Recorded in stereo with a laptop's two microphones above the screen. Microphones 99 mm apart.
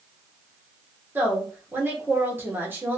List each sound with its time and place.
1.1 s a woman speaking: 20° right (ahead or behind), 0.9 m